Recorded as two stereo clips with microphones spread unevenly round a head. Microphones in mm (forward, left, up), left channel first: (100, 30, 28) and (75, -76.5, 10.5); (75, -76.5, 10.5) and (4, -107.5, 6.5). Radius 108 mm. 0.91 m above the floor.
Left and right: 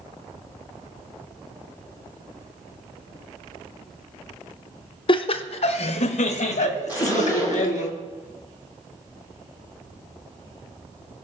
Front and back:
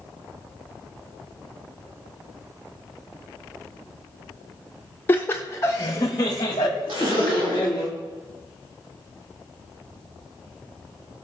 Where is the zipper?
175° left, 2 m.